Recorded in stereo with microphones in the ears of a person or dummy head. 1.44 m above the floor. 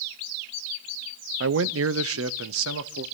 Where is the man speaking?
65° right (ahead or behind), 0.6 m; by 3.0 s 75° right (ahead or behind), 1.5 m.